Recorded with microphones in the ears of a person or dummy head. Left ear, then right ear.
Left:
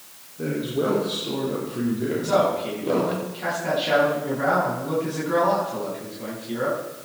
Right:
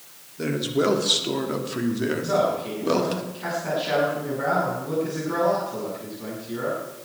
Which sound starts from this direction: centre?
A man speaking, at 2.2 s.